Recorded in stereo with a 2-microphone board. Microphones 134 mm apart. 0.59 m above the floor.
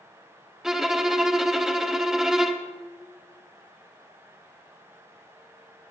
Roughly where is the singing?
I don't hear singing.